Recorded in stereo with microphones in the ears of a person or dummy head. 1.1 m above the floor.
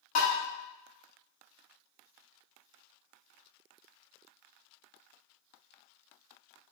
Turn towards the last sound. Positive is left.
turn(degrees=40)  # may be behind; listen again after turning